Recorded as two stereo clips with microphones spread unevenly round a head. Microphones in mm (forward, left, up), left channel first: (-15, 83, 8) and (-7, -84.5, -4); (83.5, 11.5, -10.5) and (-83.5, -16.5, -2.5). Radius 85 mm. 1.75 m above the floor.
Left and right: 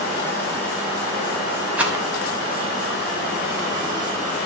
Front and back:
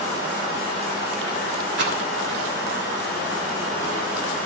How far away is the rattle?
About 3 m.